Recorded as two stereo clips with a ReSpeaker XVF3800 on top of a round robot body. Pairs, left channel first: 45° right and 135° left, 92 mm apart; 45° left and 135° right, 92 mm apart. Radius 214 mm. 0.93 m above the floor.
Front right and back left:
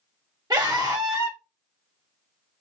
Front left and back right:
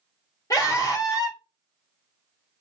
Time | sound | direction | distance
0.5 | a scream | 95° left | 2.0 m